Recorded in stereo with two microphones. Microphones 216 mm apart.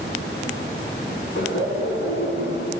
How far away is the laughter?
About 3 m.